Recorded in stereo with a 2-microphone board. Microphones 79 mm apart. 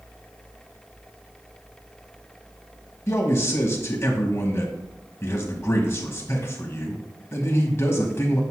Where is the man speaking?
30° left (ahead or behind), 1.3 m.